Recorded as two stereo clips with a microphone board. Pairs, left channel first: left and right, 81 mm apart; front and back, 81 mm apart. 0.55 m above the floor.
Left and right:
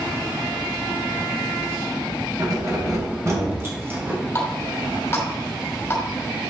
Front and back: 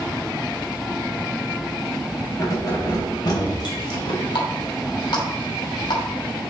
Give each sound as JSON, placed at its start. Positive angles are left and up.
{"t": 2.4, "sound": "keys jangling", "azimuth_deg": -45, "distance_m": 2.5}
{"t": 4.3, "sound": "a running tap", "azimuth_deg": 25, "distance_m": 2.5}